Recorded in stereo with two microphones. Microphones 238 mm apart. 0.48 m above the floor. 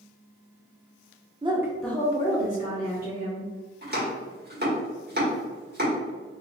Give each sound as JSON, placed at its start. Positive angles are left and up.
{"t": 1.4, "sound": "a woman speaking", "side_deg": -25, "distance_m": 0.7}
{"t": 3.8, "sound": "chopping", "side_deg": -45, "distance_m": 1.6}